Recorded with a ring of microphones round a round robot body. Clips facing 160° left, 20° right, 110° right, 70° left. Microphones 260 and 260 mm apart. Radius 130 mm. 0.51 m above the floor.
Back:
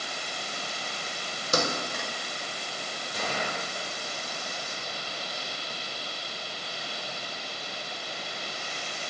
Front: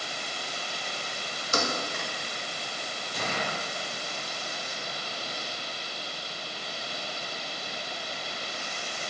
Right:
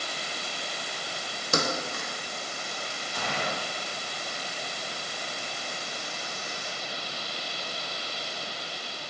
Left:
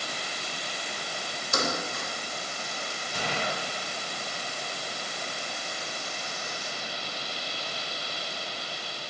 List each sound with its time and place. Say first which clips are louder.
1.5 s a thud: back 2 dB, right 2 dB; 150° right, 1.0 m
3.1 s a gunshot: even, left 1 dB; 70° left, 1.9 m